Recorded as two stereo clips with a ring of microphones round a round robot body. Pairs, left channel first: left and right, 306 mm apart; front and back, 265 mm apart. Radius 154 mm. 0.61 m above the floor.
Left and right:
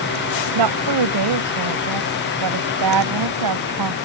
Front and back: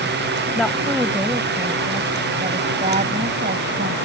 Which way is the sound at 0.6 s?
90° right.